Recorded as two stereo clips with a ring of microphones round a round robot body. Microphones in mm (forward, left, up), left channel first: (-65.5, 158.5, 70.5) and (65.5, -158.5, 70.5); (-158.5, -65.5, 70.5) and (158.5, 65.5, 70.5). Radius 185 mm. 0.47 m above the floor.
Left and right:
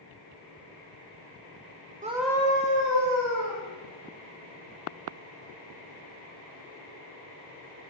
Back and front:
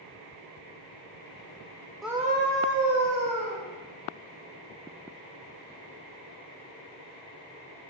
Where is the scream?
70° right, 0.7 m; by 3.6 s 65° left, 2 m.